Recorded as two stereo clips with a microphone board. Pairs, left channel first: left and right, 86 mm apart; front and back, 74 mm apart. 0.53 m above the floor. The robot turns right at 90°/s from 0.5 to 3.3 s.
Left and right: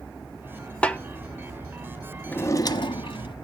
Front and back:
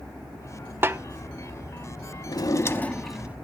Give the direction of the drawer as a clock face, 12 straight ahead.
11 o'clock.